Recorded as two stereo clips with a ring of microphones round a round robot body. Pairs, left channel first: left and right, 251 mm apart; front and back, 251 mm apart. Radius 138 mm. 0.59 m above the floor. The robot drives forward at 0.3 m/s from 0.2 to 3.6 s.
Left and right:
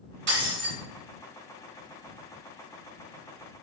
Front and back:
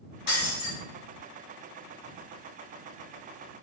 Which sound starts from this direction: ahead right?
Breaking glass, at 0.3 s.